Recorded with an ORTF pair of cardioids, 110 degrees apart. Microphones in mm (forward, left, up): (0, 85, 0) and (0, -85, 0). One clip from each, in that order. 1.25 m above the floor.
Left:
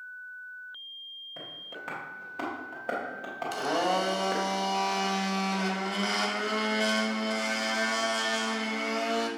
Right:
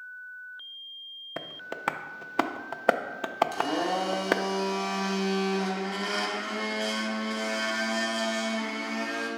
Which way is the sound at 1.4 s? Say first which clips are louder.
Right 3 dB; 60° right.